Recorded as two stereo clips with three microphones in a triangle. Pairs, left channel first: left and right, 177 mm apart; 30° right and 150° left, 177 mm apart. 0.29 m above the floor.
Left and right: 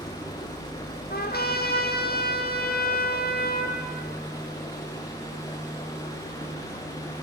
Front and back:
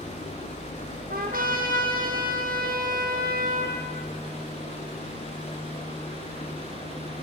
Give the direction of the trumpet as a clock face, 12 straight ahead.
8 o'clock.